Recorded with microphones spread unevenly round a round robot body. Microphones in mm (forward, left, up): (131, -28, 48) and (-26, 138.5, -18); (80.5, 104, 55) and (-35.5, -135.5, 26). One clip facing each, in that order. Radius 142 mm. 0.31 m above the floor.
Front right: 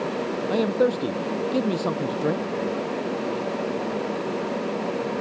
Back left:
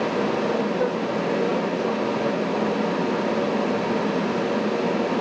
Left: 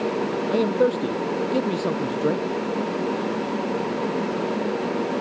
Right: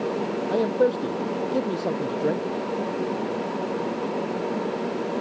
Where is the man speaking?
15° right.